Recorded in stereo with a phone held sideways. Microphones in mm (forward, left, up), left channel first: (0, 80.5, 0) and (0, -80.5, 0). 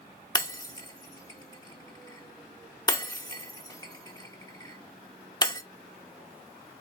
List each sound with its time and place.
0.3 s breaking glass: 25° left (ahead or behind), 0.8 m